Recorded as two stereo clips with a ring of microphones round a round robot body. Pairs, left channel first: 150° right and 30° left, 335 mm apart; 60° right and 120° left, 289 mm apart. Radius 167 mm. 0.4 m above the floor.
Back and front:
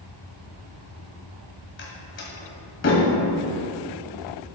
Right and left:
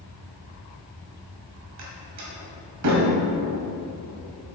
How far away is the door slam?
About 1.7 m.